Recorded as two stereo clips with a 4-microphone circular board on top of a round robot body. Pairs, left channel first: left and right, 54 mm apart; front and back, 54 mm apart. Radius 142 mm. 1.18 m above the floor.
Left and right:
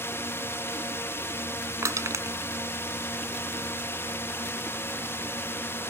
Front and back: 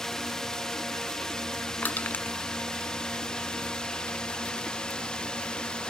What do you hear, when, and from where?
0.0 s a drone: 80° left; by 5.9 s 70° left
1.8 s crushing: 60° right